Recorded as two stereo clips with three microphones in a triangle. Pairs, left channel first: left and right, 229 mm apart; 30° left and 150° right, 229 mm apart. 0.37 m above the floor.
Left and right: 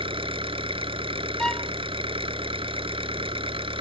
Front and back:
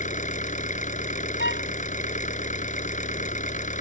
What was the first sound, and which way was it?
An engine running, 25° right.